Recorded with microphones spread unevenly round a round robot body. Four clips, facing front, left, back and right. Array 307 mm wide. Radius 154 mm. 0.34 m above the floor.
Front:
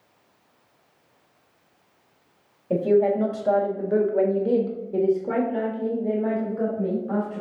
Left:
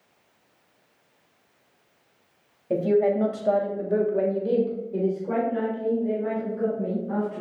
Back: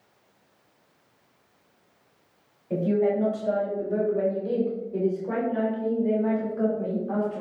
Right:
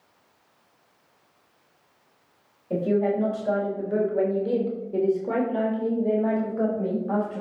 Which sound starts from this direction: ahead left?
A woman speaking, at 2.7 s.